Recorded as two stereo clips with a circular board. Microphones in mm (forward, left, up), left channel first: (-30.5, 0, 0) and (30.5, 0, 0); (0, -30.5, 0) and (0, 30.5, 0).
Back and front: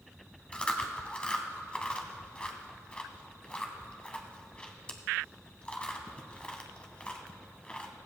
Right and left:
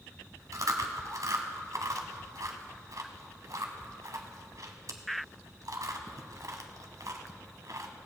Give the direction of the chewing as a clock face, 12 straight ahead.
8 o'clock.